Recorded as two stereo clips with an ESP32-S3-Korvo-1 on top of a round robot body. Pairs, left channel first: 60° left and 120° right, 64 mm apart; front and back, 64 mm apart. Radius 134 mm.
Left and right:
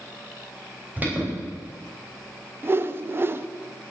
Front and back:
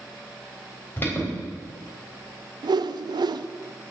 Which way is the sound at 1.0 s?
60° right.